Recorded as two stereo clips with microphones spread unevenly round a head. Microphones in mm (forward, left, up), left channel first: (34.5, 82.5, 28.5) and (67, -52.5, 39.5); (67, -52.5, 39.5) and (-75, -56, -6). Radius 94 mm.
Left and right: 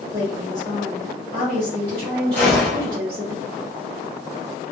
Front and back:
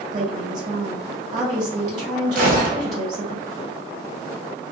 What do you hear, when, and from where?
0.1 s a woman speaking: 135° right, 1.5 m
2.4 s a gunshot: 175° right, 0.7 m